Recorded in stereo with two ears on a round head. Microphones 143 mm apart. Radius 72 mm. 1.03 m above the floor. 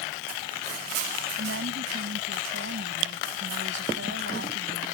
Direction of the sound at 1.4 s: 85° right.